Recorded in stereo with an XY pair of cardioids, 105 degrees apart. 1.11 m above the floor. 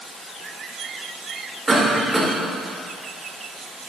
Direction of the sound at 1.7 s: 20° right.